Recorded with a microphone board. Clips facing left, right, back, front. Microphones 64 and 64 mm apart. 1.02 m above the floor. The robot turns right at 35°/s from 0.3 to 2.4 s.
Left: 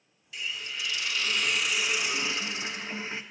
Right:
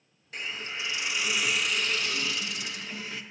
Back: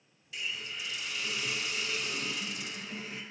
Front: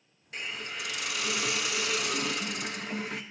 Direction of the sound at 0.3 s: 45° right.